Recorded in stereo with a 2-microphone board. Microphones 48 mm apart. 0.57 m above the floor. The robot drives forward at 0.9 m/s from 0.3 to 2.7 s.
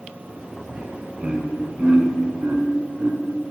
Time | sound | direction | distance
0.7 | laughter | 25° right (ahead or behind) | 3.5 m